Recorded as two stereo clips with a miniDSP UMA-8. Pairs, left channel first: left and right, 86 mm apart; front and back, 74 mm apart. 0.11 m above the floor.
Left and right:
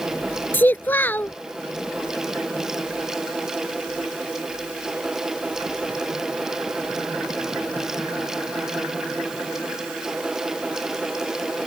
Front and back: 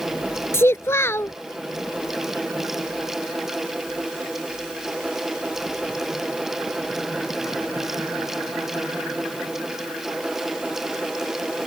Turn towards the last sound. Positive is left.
turn(degrees=35)